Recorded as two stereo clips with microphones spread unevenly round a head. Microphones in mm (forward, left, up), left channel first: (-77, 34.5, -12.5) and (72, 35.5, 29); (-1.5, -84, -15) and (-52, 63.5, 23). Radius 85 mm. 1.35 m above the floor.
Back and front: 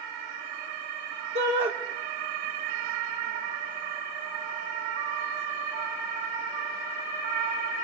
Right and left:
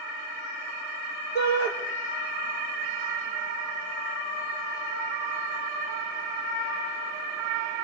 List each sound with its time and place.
1.4 s a shout: 35° right, 6 m